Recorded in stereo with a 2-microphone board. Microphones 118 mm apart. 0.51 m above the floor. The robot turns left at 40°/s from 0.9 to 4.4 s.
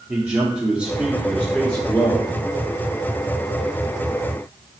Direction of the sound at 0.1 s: 165° right.